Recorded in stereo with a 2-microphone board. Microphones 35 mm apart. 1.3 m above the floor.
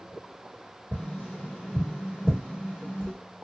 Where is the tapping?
75° left (ahead or behind), 1.2 m.